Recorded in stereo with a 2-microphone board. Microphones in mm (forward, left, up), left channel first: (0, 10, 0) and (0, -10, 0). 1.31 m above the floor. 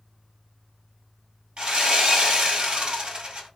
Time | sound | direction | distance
1.6 | sawing | 55° right (ahead or behind) | 1.6 m